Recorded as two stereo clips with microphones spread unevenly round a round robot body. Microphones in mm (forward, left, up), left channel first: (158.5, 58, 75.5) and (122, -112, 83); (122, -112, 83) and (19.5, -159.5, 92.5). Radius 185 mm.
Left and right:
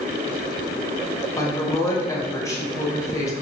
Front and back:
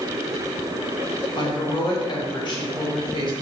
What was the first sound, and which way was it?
A woman speaking, 10° left.